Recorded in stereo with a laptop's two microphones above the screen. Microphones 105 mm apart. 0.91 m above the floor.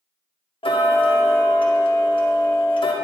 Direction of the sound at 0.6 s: 60° left (ahead or behind).